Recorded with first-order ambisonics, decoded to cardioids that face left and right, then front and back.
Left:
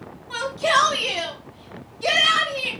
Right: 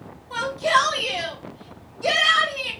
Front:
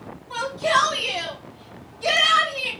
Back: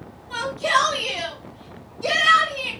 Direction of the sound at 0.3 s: 95° left.